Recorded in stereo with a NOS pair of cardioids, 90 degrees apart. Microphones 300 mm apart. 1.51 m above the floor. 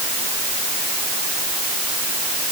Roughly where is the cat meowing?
I don't hear a cat meowing.